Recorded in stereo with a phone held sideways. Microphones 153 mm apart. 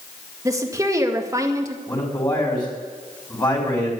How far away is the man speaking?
About 5 m.